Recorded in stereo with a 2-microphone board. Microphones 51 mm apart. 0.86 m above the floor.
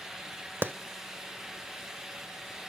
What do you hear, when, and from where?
0.6 s a clap: 45° right (ahead or behind), 0.6 m